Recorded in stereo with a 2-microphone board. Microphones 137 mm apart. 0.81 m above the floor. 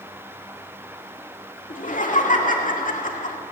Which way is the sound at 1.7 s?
70° left (ahead or behind).